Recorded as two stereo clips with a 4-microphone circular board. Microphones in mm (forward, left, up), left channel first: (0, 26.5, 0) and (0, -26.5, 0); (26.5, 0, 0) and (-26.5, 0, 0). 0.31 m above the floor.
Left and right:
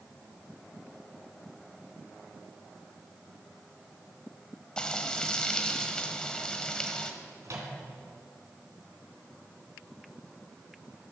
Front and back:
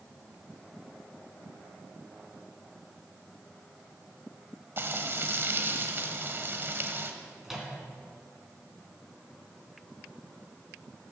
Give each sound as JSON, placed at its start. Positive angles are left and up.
{"t": 4.8, "sound": "frying", "azimuth_deg": 160, "distance_m": 1.1}
{"t": 7.4, "sound": "a microwave", "azimuth_deg": -95, "distance_m": 2.5}